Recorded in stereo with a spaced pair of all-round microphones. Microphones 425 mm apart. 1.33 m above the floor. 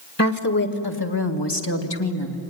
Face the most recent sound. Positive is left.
turn(degrees=85)